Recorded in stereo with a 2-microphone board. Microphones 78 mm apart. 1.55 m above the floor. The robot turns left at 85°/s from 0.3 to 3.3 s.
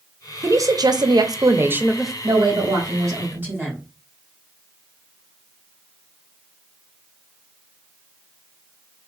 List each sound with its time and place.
0.4 s a woman speaking: 40° right, 0.6 m; by 2.1 s 175° left, 0.6 m
2.2 s a woman speaking: 65° right, 2 m; by 3.8 s 155° right, 2 m